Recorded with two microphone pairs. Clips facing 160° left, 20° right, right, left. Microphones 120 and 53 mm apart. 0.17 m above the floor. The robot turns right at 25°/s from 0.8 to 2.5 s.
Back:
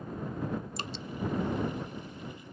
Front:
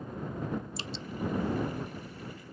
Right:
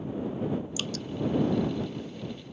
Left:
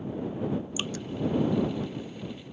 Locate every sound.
0.8 s dripping: 150° left; by 1.1 s 155° left